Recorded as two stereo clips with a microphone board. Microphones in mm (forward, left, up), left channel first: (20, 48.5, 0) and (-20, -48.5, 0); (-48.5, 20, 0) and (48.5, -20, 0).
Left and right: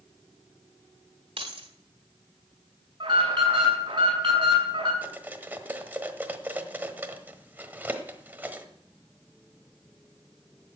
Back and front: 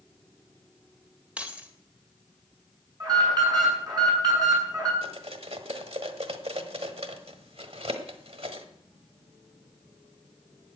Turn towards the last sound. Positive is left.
turn(degrees=-40)